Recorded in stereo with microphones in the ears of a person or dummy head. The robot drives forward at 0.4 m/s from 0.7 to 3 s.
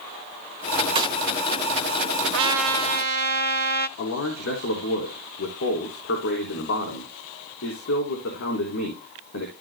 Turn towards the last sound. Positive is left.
turn(degrees=60)  # may be behind; listen again after turning